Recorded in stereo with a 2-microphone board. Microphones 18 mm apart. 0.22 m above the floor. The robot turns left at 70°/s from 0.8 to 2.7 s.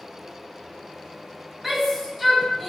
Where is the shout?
15° right (ahead or behind), 1.6 m; by 2.7 s 10° left (ahead or behind), 1.6 m.